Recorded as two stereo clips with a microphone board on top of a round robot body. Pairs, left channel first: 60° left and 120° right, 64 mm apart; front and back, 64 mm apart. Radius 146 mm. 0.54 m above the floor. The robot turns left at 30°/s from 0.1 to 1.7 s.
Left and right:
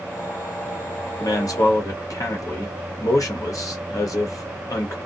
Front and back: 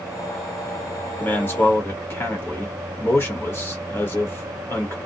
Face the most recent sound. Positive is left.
turn(degrees=45)